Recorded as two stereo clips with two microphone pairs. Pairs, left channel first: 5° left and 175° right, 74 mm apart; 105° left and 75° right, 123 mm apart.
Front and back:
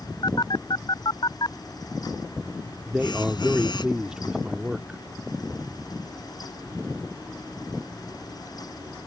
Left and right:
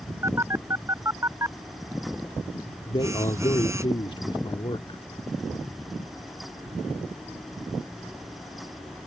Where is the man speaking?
110° left.